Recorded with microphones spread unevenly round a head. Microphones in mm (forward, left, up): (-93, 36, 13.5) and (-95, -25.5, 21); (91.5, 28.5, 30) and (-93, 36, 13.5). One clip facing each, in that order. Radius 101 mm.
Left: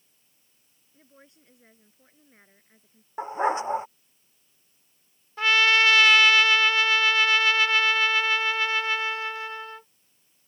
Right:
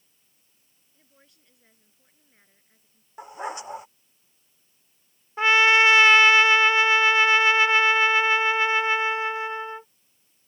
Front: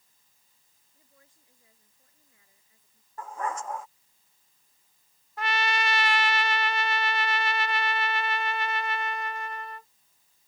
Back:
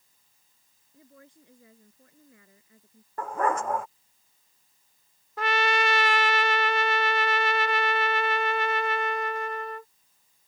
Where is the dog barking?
145° left.